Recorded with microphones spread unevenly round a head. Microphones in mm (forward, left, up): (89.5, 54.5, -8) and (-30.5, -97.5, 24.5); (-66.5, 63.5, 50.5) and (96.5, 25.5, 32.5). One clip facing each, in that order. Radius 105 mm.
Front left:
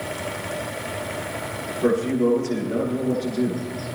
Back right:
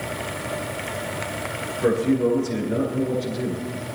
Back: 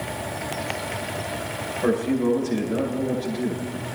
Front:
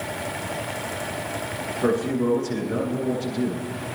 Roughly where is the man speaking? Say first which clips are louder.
Even, back 1 dB; ahead right.